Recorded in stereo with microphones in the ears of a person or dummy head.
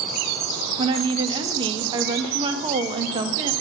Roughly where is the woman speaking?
Right.